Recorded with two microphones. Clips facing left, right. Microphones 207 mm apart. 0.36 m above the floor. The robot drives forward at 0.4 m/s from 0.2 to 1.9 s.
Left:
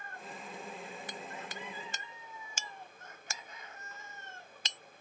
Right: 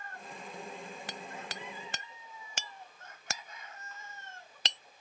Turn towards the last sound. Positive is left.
turn(degrees=-70)  # may be behind; listen again after turning